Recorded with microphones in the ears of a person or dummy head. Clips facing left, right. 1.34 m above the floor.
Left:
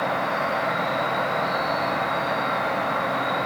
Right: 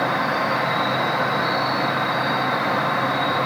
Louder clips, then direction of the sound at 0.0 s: Right 2 dB; 70° right (ahead or behind).